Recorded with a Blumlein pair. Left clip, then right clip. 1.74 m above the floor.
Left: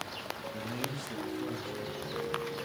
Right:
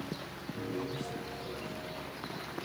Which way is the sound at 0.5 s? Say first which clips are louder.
Right 4 dB; 35° left.